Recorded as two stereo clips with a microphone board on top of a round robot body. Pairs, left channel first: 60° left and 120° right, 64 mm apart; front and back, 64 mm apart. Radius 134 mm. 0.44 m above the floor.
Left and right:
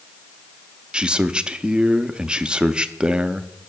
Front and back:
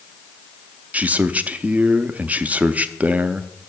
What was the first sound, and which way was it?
A man speaking, 170° right.